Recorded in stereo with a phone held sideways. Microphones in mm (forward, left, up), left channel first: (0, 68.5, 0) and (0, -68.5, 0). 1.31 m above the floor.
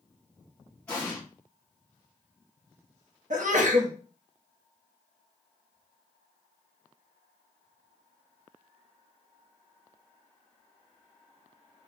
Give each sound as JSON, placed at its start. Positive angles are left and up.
{"t": 0.9, "sound": "an explosion", "side_deg": 10, "distance_m": 1.5}
{"t": 3.3, "sound": "a sneeze", "side_deg": -65, "distance_m": 0.8}